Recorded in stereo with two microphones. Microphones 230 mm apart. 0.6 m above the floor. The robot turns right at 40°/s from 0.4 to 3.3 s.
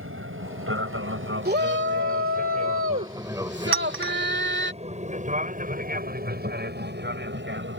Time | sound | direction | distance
0.0 | an aircraft | 65° right (ahead or behind) | ?
1.4 | a shout | 130° right | ?
3.7 | a clink | 65° right (ahead or behind) | ?